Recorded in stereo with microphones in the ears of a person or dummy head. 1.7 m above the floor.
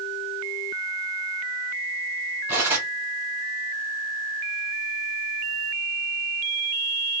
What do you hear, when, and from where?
2.5 s cutlery clinking: 10° right (ahead or behind), 1.4 m